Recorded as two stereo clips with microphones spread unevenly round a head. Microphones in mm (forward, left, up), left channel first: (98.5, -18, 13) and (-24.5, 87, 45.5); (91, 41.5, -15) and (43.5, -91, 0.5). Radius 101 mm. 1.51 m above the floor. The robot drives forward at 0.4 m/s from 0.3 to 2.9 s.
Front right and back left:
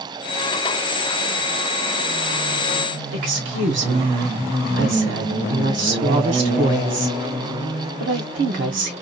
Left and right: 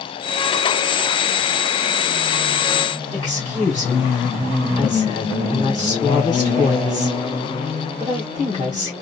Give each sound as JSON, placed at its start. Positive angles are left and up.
{"t": 3.1, "sound": "a woman speaking", "azimuth_deg": 145, "distance_m": 1.2}